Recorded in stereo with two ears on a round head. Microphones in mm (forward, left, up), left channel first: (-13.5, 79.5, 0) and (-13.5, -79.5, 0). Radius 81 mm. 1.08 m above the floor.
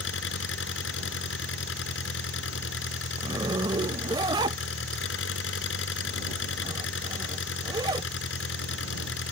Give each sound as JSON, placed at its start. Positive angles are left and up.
{"t": 0.0, "sound": "an engine running", "side_deg": 90}
{"t": 3.2, "sound": "a zipper", "side_deg": -25}